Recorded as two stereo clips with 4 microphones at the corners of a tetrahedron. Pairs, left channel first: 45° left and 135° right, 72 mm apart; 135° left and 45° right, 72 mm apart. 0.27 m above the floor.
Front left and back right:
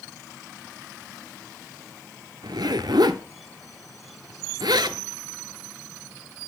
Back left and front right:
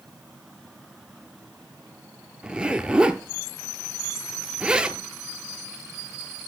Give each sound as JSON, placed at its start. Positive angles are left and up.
{"t": 2.4, "sound": "a zipper", "azimuth_deg": -120, "distance_m": 0.7}